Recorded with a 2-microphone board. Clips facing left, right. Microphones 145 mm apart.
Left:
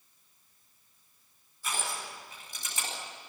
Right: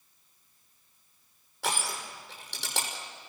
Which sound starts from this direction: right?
Crushing, at 1.6 s.